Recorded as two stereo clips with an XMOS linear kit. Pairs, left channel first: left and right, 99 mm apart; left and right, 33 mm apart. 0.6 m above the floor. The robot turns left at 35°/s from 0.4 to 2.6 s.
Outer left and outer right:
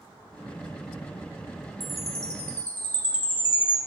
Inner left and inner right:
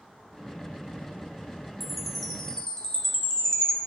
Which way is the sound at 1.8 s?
5° right (ahead or behind).